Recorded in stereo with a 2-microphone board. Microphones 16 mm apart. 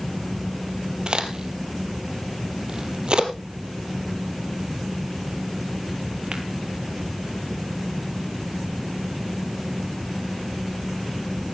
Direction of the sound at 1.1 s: 55° right (ahead or behind).